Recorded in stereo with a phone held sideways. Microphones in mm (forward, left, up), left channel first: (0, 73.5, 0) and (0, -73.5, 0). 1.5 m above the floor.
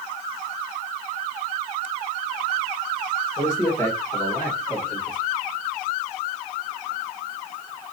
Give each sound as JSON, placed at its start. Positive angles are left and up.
{"t": 3.4, "sound": "a man speaking", "side_deg": 20, "distance_m": 2.0}